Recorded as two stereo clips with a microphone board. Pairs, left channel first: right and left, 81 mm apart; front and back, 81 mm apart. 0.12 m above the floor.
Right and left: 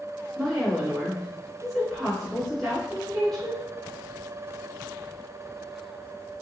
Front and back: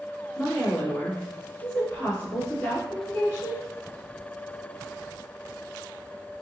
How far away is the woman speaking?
About 1.8 m.